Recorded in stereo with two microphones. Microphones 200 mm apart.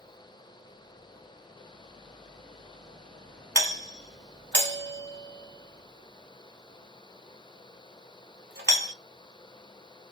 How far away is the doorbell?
About 0.9 m.